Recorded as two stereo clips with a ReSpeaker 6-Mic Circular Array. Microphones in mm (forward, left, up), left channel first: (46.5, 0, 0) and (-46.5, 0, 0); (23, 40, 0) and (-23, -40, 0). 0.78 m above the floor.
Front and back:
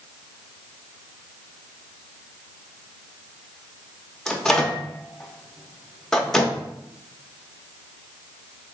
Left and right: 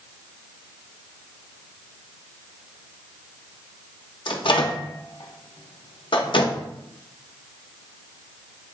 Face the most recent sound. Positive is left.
turn(degrees=85)